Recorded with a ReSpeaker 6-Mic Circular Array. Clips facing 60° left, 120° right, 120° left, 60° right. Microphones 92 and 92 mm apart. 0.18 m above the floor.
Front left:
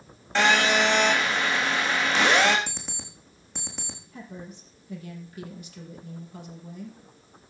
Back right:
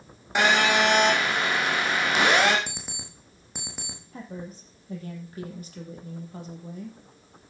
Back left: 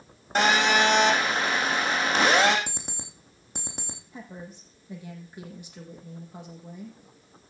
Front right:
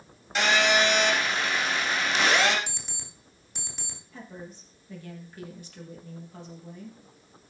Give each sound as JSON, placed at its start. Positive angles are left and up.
{"t": 0.3, "sound": "a phone buzzing", "azimuth_deg": 165, "distance_m": 5.0}
{"t": 2.7, "sound": "an alarm clock", "azimuth_deg": 160, "distance_m": 4.5}
{"t": 4.1, "sound": "a woman speaking", "azimuth_deg": -170, "distance_m": 5.0}